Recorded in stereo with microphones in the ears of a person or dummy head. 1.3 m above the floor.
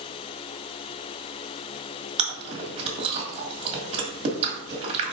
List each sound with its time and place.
2.2 s chewing: 40° right (ahead or behind), 2 m